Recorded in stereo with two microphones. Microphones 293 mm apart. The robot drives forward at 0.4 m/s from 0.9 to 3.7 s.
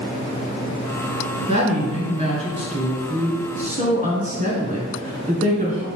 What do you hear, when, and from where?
1.5 s a woman speaking: 20° right (ahead or behind), 1.7 m; by 5.9 s 25° right (ahead or behind), 1.3 m